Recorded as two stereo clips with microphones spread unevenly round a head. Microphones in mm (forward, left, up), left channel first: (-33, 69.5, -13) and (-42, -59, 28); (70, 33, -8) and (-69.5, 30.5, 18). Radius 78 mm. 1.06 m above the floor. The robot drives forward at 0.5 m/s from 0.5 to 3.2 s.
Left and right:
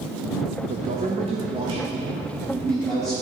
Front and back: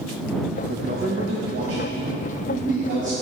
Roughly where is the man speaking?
Behind right.